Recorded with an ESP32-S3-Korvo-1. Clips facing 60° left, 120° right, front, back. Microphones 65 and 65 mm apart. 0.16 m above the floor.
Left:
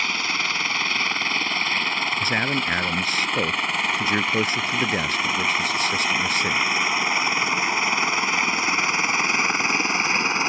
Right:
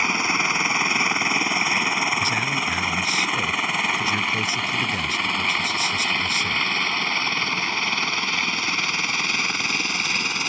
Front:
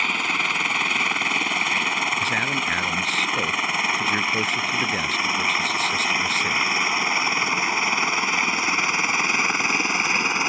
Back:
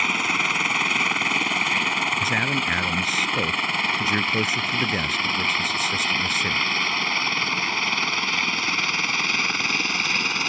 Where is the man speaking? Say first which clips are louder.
Even, even; 95° left.